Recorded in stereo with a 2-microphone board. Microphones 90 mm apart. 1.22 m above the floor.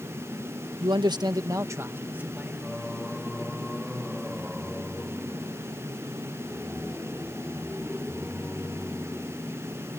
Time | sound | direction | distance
0.8 | a man speaking | 60° right (ahead or behind) | ?
2.6 | singing | 5° right (ahead or behind) | ?